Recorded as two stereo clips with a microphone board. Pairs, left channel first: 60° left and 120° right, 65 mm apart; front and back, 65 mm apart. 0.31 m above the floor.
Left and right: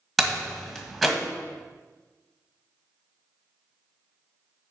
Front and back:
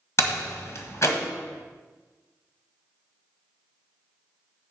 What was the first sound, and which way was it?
A door slam, 30° right.